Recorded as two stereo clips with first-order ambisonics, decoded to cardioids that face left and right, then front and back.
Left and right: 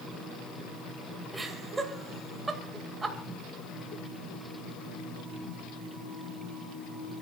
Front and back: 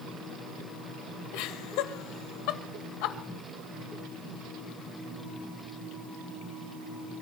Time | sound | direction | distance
1.3 | laughter | 15° right | 2.5 m